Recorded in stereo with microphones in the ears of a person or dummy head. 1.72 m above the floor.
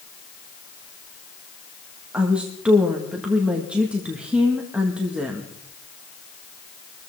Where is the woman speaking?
5° right (ahead or behind), 1.8 m.